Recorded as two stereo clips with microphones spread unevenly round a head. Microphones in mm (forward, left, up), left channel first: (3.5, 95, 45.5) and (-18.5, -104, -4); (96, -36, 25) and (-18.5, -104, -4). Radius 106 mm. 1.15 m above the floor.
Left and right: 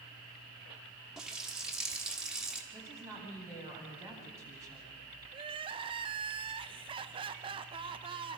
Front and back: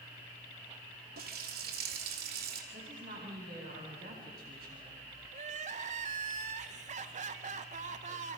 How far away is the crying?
About 1.1 m.